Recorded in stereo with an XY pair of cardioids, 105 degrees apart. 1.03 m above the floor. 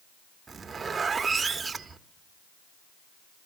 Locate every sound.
0.5 s a zipper: 30° right, 0.9 m